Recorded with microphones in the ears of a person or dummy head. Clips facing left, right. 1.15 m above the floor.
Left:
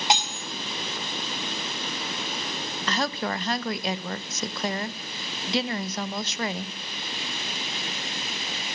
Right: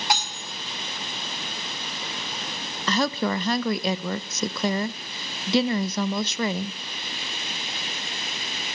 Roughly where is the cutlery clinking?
Centre.